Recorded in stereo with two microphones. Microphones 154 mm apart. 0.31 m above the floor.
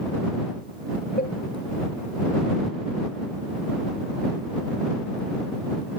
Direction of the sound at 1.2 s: 70° left (ahead or behind).